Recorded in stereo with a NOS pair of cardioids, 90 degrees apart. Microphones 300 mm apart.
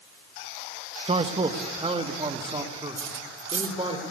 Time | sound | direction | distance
1.1 | a man speaking | 20° right | 1.7 m
3.0 | cutlery clinking | 45° right | 2.5 m